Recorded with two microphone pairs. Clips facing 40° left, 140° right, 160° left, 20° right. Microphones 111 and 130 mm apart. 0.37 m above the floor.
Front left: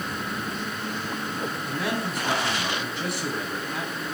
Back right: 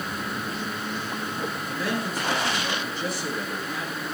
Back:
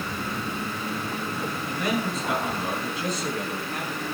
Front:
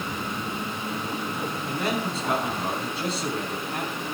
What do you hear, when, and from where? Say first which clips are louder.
1.7 s a man speaking: even, back 1 dB; 40° left, 4 m